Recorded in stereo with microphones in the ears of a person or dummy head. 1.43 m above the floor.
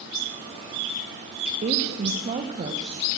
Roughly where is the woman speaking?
Right.